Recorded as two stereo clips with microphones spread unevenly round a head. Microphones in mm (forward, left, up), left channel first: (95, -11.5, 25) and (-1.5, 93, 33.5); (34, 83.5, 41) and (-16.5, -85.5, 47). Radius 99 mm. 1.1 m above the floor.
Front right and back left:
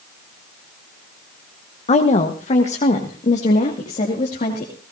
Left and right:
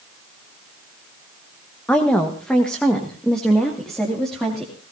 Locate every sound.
1.9 s a woman speaking: 10° right, 1.2 m; by 4.7 s 15° right, 3 m